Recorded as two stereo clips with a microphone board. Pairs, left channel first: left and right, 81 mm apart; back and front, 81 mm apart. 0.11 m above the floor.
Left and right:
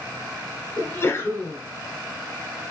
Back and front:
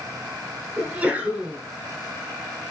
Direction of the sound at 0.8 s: 55° left.